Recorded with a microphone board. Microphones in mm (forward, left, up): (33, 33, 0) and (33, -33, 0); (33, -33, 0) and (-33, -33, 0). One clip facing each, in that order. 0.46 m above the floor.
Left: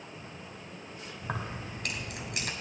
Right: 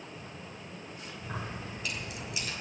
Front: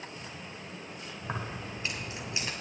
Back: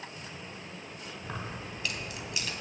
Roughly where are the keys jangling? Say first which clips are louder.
Left 3 dB, front 3 dB; ahead left.